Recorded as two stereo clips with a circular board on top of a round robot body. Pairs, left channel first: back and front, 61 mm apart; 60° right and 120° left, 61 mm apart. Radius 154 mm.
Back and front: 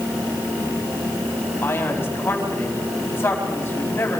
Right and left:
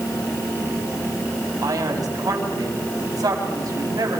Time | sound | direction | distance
1.6 | a man speaking | 130° left | 4.5 m